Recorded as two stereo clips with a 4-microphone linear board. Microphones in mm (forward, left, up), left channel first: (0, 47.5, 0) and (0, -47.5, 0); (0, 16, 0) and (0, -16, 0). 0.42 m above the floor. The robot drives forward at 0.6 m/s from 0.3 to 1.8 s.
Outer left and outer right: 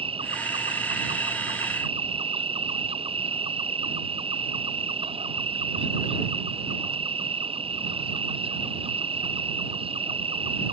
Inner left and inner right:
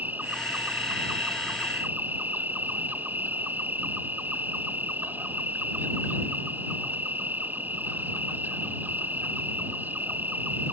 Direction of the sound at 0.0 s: 80° right.